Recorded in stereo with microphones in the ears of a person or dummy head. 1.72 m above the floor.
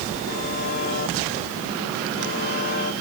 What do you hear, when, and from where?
0.3 s a buzzer: 55° left (ahead or behind)